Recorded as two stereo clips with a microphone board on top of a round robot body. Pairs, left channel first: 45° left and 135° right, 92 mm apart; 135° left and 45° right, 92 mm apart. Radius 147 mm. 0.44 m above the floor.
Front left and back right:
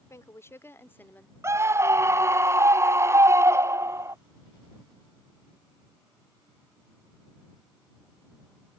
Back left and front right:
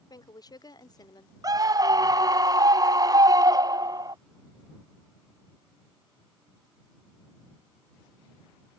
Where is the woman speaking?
100° left; by 1.3 s 115° left.